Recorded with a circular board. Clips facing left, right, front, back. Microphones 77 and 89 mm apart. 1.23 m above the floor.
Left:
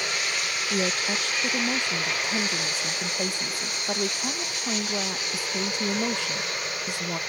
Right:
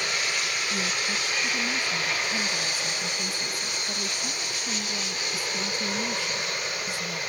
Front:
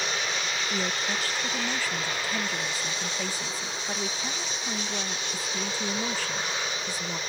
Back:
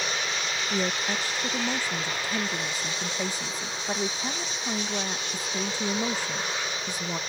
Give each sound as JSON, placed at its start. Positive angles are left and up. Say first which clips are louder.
{"t": 0.7, "sound": "a woman speaking", "louder": "left 6 dB, back 3 dB", "azimuth_deg": 110}